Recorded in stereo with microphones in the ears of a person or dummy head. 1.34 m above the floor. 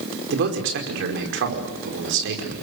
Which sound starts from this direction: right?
A man speaking, at 0.3 s.